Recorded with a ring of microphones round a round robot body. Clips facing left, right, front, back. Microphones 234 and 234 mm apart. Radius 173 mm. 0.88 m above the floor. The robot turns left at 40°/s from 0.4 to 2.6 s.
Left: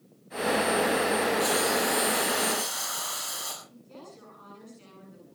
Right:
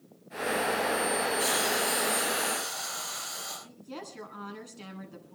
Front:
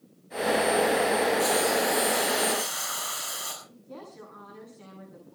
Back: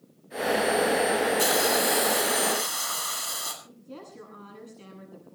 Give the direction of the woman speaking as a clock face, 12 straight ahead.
4 o'clock.